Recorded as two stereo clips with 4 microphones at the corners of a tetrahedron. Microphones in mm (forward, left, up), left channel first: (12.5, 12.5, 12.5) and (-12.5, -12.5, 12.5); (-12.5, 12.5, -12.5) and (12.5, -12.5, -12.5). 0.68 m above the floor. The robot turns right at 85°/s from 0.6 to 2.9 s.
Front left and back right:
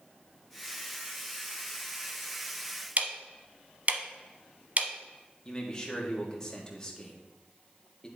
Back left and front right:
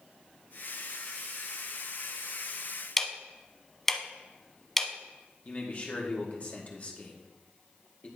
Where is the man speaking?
105° left, 1.4 m.